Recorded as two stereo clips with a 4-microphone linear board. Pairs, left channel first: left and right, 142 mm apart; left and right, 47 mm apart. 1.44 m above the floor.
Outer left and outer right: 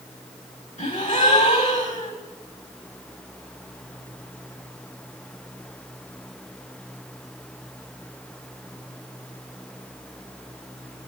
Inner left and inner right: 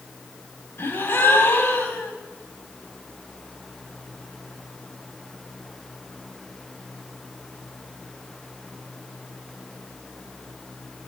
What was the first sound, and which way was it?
A gasp, 60° left (ahead or behind).